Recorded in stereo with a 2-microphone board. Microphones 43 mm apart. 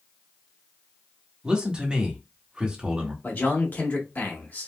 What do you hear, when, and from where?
1.4 s a man speaking: 20° right (ahead or behind), 1.1 m
3.2 s a man speaking: 45° left (ahead or behind), 1.1 m